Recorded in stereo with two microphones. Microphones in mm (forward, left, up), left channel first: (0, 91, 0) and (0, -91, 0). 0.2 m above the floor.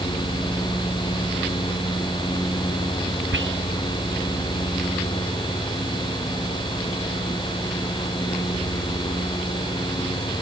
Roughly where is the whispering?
Right.